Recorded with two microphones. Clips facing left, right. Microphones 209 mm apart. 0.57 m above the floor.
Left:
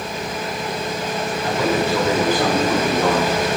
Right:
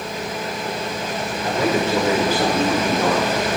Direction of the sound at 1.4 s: 25° right (ahead or behind).